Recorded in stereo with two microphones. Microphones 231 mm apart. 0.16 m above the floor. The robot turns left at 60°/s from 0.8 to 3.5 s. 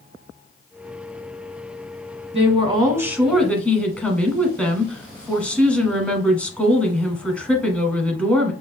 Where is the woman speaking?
120° right, 1.2 m; by 8.5 s 170° left, 1.2 m.